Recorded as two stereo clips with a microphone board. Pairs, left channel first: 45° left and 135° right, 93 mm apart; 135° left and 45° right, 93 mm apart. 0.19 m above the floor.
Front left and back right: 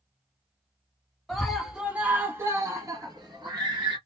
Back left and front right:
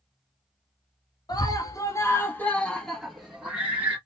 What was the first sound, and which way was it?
A scream, 130° left.